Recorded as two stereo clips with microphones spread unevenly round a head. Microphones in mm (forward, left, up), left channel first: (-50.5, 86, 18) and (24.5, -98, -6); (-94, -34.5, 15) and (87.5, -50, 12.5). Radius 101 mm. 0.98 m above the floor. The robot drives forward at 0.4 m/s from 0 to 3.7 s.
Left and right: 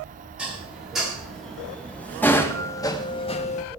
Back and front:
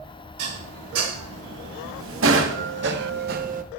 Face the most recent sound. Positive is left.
turn(degrees=55)